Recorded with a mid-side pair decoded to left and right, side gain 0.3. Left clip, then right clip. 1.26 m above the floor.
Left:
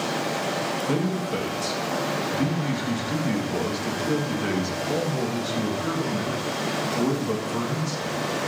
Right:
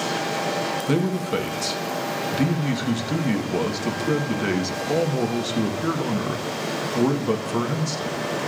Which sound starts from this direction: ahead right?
A man speaking, at 0.9 s.